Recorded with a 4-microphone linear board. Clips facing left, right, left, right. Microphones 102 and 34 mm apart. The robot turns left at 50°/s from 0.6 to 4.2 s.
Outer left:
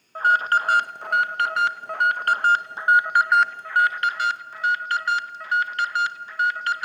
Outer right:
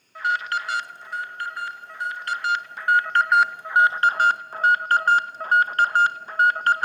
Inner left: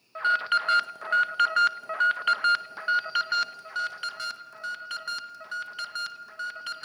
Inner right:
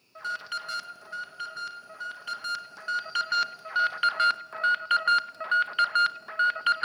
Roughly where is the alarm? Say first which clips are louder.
Outer left 5 dB, inner left 10 dB; behind left.